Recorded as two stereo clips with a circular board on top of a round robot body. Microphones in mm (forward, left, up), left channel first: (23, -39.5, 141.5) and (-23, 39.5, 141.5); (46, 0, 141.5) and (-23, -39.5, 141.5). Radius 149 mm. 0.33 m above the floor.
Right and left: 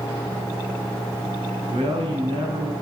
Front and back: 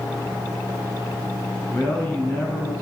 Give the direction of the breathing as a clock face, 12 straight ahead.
I don't hear breathing.